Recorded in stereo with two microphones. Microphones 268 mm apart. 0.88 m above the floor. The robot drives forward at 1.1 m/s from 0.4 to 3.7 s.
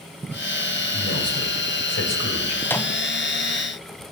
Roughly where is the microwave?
Centre.